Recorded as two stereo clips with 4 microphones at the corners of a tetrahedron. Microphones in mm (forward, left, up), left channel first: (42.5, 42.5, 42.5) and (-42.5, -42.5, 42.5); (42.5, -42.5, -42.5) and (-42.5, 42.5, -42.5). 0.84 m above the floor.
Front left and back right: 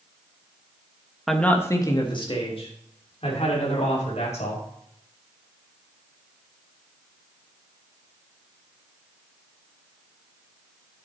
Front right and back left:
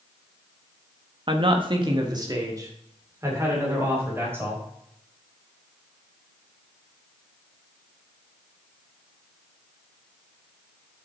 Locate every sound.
1.3 s a man speaking: 135° left, 1.2 m; by 4.6 s 65° left, 4.5 m